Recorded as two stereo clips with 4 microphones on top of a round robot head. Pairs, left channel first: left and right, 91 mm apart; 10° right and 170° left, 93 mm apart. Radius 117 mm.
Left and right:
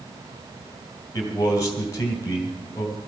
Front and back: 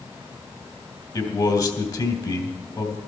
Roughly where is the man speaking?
Ahead left.